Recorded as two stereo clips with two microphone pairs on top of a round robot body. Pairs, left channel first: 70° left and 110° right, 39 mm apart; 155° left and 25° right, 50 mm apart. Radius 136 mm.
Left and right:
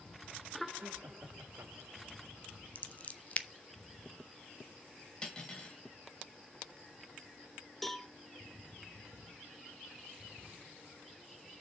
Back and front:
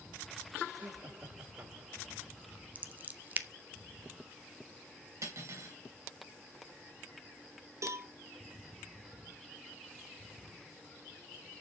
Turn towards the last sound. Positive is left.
turn(degrees=-15)